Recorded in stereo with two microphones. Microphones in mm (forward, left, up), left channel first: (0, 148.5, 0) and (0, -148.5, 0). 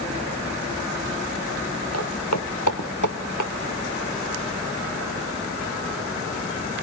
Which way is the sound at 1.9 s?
55° left (ahead or behind).